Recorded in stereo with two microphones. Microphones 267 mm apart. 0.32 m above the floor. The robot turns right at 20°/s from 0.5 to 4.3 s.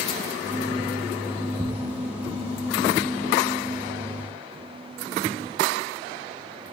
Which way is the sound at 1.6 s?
50° left (ahead or behind).